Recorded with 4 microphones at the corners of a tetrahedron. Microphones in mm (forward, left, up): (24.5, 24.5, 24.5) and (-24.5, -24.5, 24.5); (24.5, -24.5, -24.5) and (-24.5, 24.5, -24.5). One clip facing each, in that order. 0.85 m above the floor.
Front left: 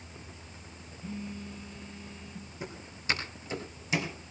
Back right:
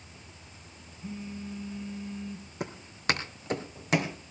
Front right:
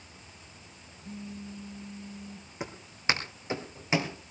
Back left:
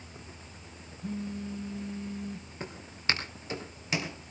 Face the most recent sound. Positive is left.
turn(degrees=-105)